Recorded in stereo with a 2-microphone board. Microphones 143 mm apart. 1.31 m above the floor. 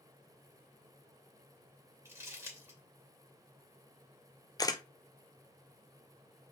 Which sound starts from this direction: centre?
Crumpling, at 2.0 s.